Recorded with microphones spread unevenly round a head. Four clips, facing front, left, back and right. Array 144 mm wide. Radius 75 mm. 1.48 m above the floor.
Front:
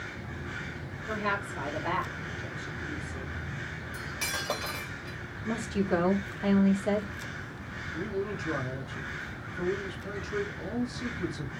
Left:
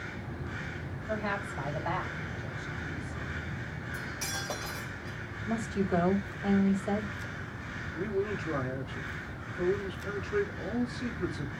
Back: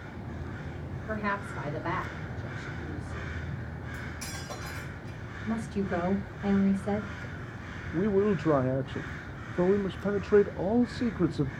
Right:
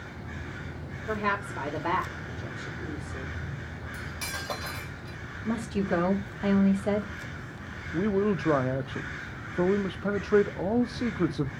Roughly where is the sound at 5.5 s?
Ahead right.